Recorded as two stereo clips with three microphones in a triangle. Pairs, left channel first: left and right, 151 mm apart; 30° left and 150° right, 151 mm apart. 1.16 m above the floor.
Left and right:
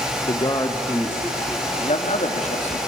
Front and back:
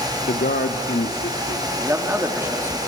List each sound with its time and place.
0.3 s a man speaking: 35° left, 0.7 m; by 1.7 s 10° left, 2.5 m
1.8 s a man speaking: 135° left, 2.5 m